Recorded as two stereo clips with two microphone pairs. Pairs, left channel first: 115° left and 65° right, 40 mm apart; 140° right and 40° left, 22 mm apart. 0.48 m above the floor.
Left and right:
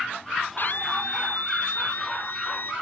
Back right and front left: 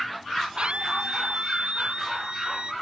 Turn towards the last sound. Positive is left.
turn(degrees=85)